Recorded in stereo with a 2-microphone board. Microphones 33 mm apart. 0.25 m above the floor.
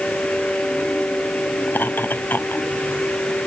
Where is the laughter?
70° left (ahead or behind).